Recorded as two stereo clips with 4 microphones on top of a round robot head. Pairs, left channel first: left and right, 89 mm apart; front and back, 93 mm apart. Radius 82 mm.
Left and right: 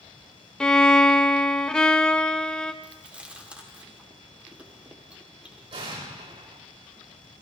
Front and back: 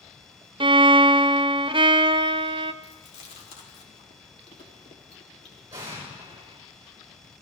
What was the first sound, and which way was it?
A violin, 170° left.